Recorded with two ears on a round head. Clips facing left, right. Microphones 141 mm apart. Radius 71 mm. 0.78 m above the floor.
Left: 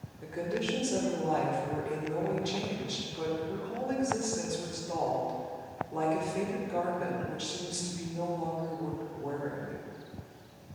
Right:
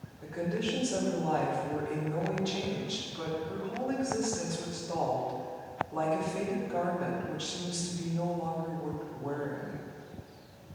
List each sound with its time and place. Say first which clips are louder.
0.2 s a woman speaking: even; 20° left (ahead or behind), 2.5 m